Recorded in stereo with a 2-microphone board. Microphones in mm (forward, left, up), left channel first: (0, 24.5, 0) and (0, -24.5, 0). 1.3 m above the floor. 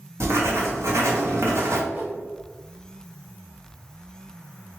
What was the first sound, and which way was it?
Writing, 65° right (ahead or behind).